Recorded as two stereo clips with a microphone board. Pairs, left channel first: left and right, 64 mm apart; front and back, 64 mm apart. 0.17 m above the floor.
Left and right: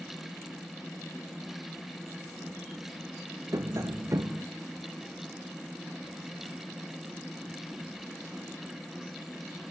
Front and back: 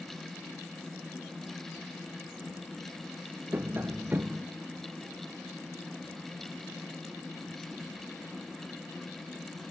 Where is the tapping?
120° right, 0.6 m.